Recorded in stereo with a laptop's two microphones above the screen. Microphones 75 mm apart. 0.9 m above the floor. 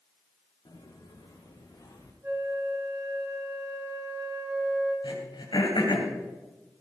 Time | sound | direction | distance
0.7 | footsteps | 75° left (ahead or behind) | 4 m
2.2 | a flute | 35° right (ahead or behind) | 5 m
5.0 | throat clearing | 90° left | 3 m